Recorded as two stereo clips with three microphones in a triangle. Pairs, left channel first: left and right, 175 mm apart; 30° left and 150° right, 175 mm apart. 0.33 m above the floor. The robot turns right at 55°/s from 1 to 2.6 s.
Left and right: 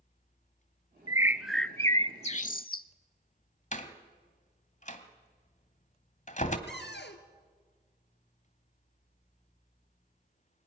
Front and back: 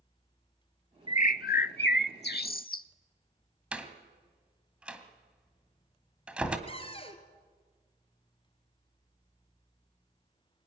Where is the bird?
25° right, 0.6 m; by 2.9 s 60° left, 0.6 m.